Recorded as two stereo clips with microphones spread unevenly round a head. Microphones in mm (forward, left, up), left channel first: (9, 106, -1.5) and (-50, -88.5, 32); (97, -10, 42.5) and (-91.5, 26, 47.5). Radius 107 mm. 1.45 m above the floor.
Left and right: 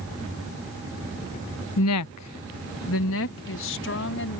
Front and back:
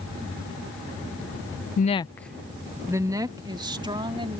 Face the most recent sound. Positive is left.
turn(degrees=105)